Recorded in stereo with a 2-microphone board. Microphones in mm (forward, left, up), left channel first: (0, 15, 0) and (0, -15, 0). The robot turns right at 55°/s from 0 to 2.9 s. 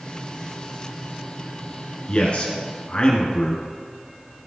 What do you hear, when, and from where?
2.1 s a man speaking: 70° left, 1.6 m; by 3.6 s 115° left, 1.6 m